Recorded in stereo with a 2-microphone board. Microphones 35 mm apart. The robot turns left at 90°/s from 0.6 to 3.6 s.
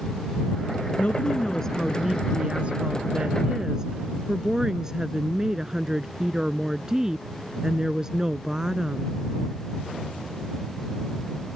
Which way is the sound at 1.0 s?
80° left.